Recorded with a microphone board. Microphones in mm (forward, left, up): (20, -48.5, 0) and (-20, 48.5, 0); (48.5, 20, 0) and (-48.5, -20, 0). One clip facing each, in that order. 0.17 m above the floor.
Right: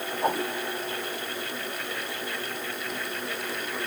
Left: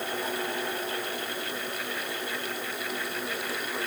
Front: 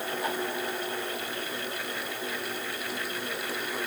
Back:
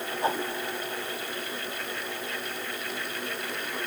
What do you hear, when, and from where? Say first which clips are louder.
0.2 s a whoosh: right 5 dB, back 5 dB; 100° right